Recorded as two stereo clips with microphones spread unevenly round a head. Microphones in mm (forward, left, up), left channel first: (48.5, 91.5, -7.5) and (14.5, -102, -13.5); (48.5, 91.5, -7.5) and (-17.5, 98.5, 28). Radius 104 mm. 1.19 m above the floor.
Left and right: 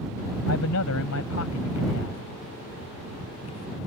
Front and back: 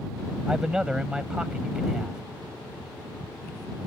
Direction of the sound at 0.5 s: 100° left.